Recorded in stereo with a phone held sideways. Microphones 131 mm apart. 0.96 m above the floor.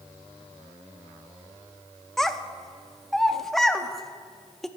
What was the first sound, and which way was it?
A child speaking, 5° left (ahead or behind).